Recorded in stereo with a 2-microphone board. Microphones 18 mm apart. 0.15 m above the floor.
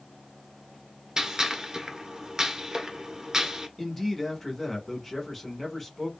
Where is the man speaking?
10° left (ahead or behind), 1.0 m.